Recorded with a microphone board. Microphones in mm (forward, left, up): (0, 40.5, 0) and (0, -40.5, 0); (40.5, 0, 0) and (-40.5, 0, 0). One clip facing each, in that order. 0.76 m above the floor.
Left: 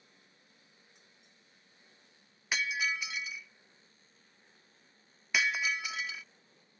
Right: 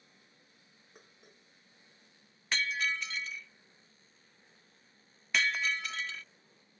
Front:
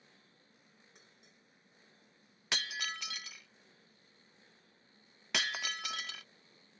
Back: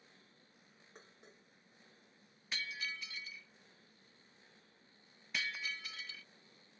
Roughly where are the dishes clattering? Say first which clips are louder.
Right 5 dB, back 4 dB; behind right.